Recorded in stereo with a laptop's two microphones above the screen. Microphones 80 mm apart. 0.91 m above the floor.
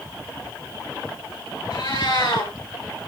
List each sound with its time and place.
1.7 s a cat meowing: 70° left (ahead or behind), 7.5 m